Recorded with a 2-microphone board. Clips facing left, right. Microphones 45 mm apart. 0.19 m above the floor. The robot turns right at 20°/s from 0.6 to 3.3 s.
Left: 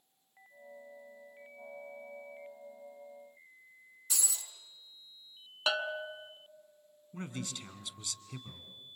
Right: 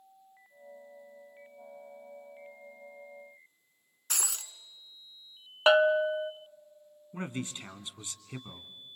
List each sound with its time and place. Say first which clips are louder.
4.1 s breaking glass: right 3 dB; 55° right (ahead or behind), 1.4 m
5.7 s a bell: right 12 dB; 35° right (ahead or behind), 0.6 m
7.1 s a man speaking: right 4 dB; 30° right (ahead or behind), 1.8 m